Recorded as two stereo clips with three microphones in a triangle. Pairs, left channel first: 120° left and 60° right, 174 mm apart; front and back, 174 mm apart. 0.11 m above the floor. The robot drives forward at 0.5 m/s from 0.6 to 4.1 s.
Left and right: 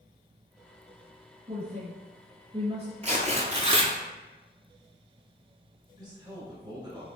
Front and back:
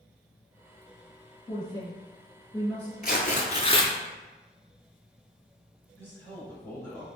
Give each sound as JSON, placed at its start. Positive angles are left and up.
{"t": 1.5, "sound": "a woman speaking", "azimuth_deg": -45, "distance_m": 1.9}
{"t": 3.0, "sound": "tearing paper", "azimuth_deg": -20, "distance_m": 0.8}
{"t": 6.0, "sound": "a man speaking", "azimuth_deg": -60, "distance_m": 1.7}